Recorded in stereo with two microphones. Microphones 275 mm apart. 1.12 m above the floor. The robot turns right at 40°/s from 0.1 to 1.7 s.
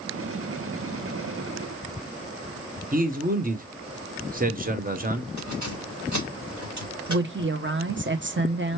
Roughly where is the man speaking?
Right.